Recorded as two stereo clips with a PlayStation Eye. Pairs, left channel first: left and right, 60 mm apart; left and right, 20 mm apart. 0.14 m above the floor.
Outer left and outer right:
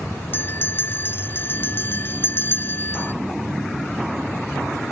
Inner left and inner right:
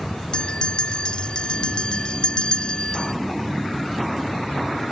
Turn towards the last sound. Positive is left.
turn(degrees=35)  # may be behind; listen again after turning